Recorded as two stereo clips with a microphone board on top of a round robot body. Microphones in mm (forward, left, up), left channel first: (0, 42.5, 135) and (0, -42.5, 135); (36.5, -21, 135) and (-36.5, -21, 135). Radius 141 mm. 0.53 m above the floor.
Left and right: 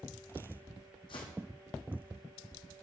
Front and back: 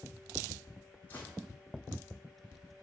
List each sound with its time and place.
1.1 s footsteps: 70° left, 1.5 m